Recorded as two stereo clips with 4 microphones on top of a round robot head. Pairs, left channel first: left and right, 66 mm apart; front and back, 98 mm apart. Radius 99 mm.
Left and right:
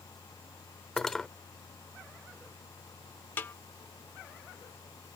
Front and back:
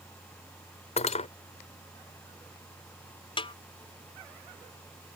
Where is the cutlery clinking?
5° left.